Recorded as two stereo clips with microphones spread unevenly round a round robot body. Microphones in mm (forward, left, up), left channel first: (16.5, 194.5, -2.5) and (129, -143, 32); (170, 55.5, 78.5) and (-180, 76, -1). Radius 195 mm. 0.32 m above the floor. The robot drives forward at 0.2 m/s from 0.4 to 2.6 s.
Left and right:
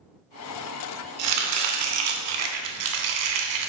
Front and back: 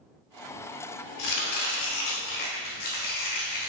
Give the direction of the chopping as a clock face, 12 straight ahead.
2 o'clock.